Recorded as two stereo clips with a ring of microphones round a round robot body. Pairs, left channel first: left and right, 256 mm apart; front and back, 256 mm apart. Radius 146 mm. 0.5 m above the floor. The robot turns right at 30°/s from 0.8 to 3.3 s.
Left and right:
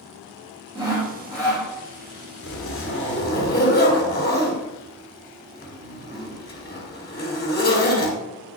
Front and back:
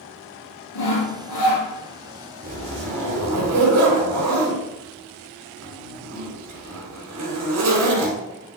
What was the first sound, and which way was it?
Sawing, 15° right.